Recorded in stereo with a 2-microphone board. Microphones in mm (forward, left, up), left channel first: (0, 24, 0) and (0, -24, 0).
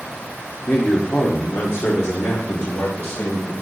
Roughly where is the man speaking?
Left.